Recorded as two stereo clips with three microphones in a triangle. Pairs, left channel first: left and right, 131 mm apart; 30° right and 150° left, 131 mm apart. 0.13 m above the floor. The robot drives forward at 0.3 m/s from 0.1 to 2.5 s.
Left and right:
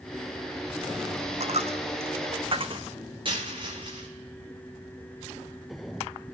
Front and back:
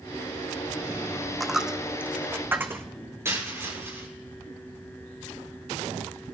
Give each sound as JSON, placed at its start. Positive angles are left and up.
{"t": 1.4, "sound": "a dropped coin", "azimuth_deg": -120, "distance_m": 0.9}
{"t": 3.2, "sound": "a dropped coin", "azimuth_deg": -140, "distance_m": 10.0}